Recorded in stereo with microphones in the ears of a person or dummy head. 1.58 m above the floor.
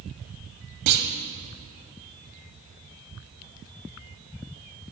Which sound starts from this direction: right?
A clunk, at 0.9 s.